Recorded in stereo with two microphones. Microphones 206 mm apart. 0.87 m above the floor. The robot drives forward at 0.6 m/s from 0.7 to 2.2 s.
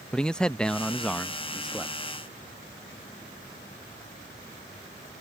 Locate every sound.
0.1 s a man speaking: 5° left (ahead or behind); by 1.9 s centre (ahead or behind)